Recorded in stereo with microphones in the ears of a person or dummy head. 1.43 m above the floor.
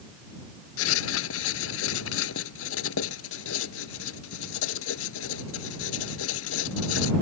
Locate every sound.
0.8 s writing: 80° left